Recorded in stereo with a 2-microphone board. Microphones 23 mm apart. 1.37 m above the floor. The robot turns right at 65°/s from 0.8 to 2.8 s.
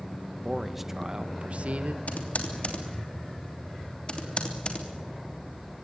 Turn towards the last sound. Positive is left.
turn(degrees=45)  # may be behind; listen again after turning